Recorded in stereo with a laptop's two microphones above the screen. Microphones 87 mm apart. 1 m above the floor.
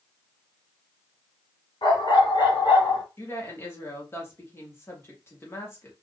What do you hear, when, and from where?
1.8 s a dog barking: 65° left (ahead or behind), 1.8 m; by 3.0 s 55° left (ahead or behind), 1.5 m
3.2 s a woman speaking: 30° left (ahead or behind), 1.1 m